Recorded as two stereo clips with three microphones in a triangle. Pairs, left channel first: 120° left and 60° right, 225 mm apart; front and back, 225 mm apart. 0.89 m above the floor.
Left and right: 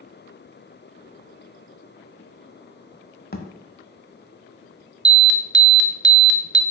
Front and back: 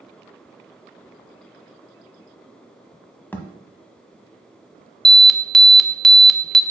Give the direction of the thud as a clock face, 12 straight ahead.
9 o'clock.